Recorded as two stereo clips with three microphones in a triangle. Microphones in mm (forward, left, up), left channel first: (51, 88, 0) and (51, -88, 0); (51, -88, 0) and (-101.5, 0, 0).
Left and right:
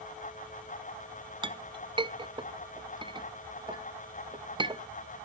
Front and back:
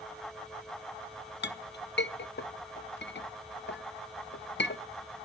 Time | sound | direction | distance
1.4 | a clink | 25° right | 0.5 m